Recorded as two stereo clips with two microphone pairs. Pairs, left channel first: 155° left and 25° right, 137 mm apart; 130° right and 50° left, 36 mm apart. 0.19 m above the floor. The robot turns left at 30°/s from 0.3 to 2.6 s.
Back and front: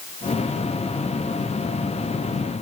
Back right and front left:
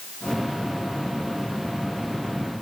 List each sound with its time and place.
Only background noise.